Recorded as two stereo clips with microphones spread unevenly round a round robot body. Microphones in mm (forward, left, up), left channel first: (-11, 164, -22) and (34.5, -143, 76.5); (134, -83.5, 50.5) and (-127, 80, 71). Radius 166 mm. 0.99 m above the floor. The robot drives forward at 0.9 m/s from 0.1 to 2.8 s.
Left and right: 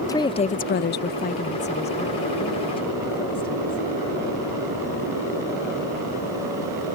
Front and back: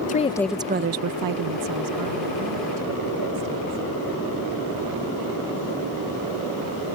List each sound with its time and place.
0.1 s a woman speaking: 30° left; by 3.8 s 170° left